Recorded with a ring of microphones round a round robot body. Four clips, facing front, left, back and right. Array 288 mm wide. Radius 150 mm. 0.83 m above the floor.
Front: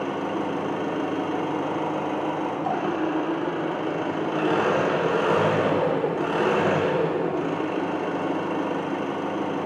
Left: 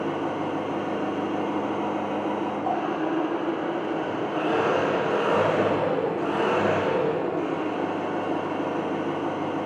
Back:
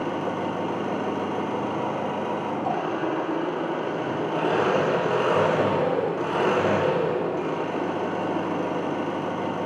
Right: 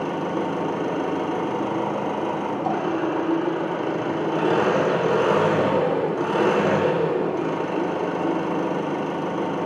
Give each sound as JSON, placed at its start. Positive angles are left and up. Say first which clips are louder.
{"t": 0.0, "sound": "an engine running", "louder": "right 2 dB, even", "azimuth_deg": -70, "distance_m": 1.0}